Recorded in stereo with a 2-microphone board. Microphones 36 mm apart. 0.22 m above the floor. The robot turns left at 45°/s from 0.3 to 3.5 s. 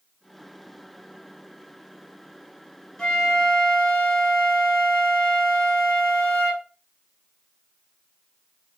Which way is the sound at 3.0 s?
20° left (ahead or behind).